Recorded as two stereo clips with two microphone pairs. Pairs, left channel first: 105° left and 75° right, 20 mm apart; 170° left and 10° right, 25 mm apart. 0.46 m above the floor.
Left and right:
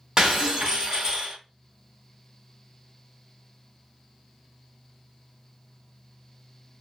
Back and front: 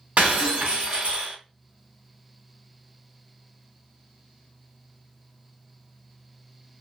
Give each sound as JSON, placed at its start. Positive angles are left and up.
{"t": 0.2, "sound": "breaking glass", "azimuth_deg": -20, "distance_m": 1.7}